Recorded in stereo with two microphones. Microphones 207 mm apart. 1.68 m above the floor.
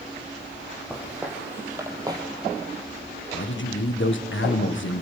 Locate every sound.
0.9 s footsteps: 5° right (ahead or behind), 4 m; by 2.2 s 20° right (ahead or behind), 3 m
3.3 s a man speaking: 70° left (ahead or behind), 1.6 m